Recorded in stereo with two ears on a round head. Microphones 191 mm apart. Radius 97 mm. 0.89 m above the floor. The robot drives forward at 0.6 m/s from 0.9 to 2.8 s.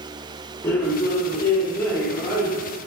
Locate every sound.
0.6 s a man speaking: 10° left (ahead or behind), 0.8 m; by 2.6 s 5° left (ahead or behind), 1.5 m